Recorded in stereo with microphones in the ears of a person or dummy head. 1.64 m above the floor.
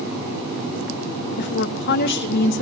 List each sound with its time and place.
1.4 s a woman speaking: 60° left (ahead or behind), 2.5 m